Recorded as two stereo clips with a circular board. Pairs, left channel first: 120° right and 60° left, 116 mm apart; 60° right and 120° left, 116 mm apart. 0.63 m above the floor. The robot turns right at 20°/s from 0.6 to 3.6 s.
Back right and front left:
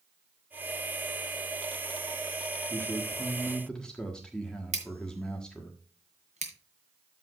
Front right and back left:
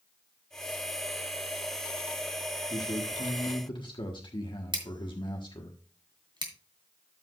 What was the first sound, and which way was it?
A man speaking, 60° right.